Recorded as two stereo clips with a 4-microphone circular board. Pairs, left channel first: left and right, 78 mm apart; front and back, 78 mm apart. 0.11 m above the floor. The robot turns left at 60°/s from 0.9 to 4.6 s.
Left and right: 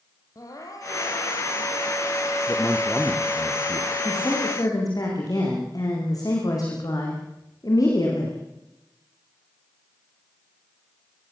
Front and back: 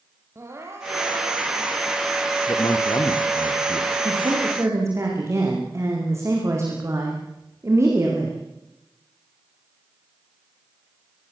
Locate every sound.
0.3 s crying: 125° left, 4.5 m; by 2.4 s 40° left, 4.5 m
2.5 s a man speaking: 40° left, 3 m; by 4.0 s 45° right, 3 m
4.0 s a woman speaking: 160° left, 7.5 m; by 8.4 s 130° left, 7.5 m